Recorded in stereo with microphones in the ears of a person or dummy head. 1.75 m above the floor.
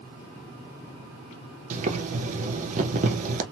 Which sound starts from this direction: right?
Boiling, at 1.7 s.